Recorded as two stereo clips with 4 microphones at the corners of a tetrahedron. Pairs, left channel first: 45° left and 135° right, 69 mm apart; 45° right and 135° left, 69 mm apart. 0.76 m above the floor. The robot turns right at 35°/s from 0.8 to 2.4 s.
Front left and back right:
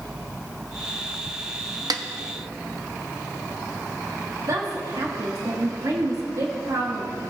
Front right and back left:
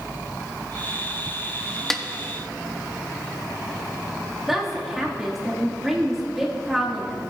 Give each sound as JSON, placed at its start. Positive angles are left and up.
{"t": 1.9, "sound": "a snare drum", "azimuth_deg": -130, "distance_m": 0.6}
{"t": 4.5, "sound": "a woman speaking", "azimuth_deg": -140, "distance_m": 1.4}